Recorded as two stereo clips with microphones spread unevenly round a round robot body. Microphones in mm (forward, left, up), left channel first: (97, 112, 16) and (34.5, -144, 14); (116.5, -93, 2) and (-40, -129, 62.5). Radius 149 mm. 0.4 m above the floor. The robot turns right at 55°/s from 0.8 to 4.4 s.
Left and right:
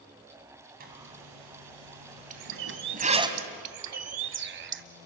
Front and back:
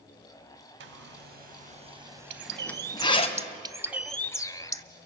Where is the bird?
170° right, 1.1 m; by 4.8 s 55° right, 1.1 m.